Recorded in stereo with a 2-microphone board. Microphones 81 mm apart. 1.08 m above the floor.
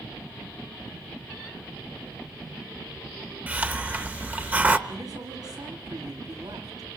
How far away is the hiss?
About 1.0 m.